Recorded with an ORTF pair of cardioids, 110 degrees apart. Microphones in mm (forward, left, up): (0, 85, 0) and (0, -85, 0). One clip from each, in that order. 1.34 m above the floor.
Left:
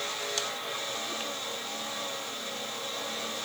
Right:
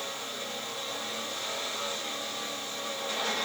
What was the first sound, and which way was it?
Only background noise.